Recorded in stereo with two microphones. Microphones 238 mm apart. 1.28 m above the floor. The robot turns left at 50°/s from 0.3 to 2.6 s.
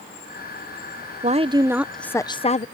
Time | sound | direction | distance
1.2 | a woman speaking | 145° right | ?